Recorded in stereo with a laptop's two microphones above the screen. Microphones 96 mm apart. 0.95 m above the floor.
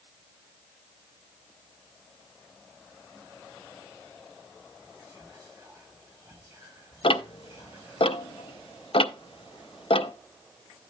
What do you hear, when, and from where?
4.8 s whispering: 40° right (ahead or behind), 3.5 m
7.0 s ticking: 65° left (ahead or behind), 0.5 m